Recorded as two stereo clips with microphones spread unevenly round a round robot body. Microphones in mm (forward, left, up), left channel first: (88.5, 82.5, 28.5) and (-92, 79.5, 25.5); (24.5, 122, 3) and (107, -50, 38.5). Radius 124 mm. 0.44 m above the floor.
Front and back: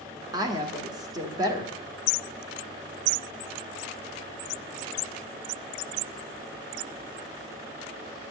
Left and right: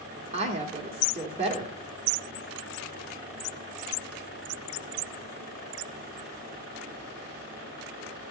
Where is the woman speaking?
125° right, 1.5 m.